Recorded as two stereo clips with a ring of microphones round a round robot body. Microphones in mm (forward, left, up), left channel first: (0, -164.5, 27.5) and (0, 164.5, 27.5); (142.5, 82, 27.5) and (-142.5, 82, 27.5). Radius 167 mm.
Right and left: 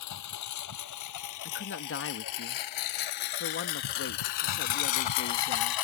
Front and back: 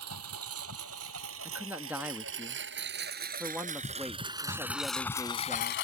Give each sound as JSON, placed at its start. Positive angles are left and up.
{"t": 0.0, "sound": "a lawn mower", "azimuth_deg": -130}
{"t": 1.4, "sound": "a man speaking", "azimuth_deg": -100}